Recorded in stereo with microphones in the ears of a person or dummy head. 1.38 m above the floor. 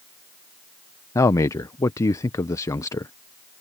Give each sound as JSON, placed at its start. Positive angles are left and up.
{"t": 1.1, "sound": "a man speaking", "side_deg": 15}